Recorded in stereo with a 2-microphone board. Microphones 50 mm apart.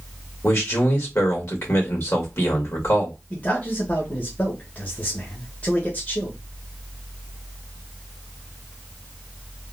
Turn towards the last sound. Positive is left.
turn(degrees=30)  # may be behind; listen again after turning